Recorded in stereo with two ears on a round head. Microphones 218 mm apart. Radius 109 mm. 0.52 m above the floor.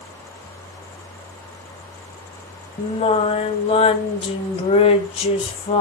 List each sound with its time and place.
2.8 s singing: 25° left (ahead or behind), 1.2 m